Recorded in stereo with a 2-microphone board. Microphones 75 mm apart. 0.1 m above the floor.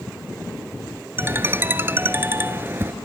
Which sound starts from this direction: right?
A ringtone, at 1.2 s.